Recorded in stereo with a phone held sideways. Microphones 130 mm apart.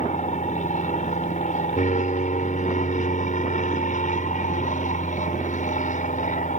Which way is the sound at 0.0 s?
70° left (ahead or behind).